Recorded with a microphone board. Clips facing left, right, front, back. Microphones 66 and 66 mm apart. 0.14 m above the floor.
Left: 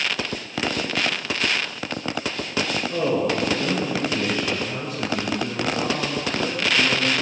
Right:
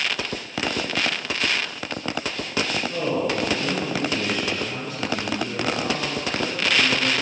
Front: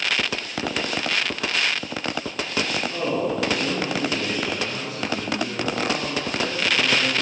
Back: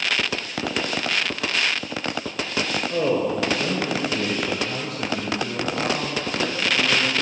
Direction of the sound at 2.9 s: 145° left.